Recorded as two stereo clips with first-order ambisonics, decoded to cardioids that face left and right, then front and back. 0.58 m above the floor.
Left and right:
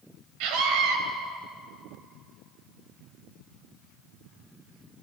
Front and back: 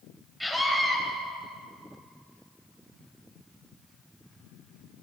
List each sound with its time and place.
0.4 s a scream: 90° right, 3.5 m